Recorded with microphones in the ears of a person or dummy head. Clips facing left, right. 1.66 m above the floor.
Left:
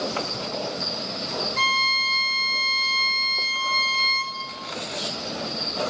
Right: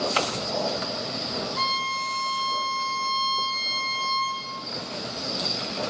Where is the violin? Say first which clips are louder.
Left 1 dB; 25° left (ahead or behind), 4 m.